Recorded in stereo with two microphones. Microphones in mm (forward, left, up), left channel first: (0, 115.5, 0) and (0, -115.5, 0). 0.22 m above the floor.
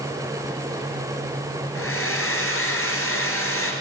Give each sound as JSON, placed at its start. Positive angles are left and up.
{"t": 1.8, "sound": "a hair dryer", "side_deg": 75, "distance_m": 1.8}